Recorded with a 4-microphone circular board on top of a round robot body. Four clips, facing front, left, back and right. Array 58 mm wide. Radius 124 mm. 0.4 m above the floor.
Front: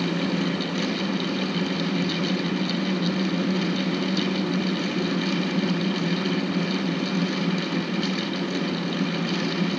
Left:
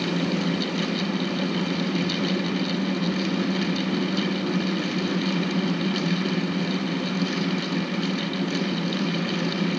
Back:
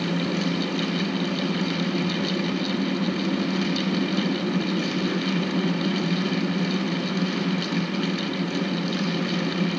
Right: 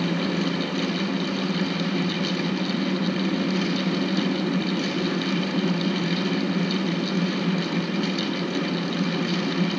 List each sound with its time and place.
Only background noise.